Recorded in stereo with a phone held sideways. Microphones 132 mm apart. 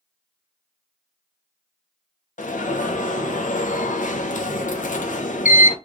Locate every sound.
2.4 s an alarm: 75° left (ahead or behind), 0.6 m